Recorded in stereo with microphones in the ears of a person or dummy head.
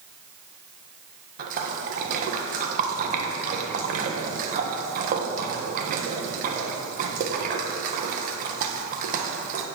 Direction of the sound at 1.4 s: 40° right (ahead or behind).